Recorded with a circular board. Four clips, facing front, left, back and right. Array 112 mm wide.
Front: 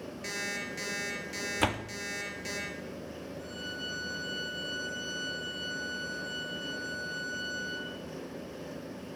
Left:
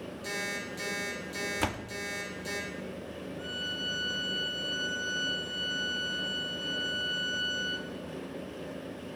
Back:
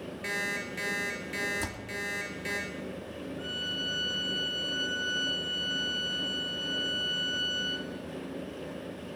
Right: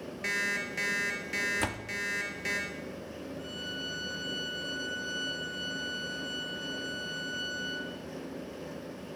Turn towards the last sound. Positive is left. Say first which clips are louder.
# left 1 dB, back 2 dB
turn(degrees=170)